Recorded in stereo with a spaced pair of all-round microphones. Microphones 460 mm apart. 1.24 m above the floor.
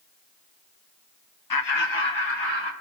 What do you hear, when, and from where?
1.5 s laughter: 45° left (ahead or behind), 0.6 m; by 2.7 s 75° left (ahead or behind), 2 m